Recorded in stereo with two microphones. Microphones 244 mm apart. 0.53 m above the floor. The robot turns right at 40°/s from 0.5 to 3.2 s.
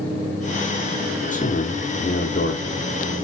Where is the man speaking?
45° left, 0.9 m; by 2.8 s 105° left, 0.9 m.